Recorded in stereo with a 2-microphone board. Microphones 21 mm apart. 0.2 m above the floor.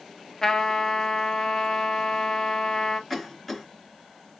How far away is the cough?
About 1.8 m.